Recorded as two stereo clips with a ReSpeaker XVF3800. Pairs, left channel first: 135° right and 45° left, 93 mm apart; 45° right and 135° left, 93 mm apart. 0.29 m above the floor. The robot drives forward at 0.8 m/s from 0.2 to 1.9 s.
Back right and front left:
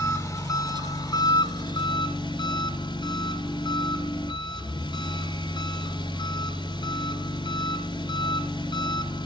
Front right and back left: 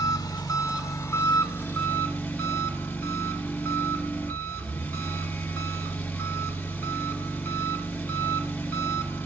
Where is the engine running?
85° right, 2.5 m; by 9.3 s 120° right, 3 m.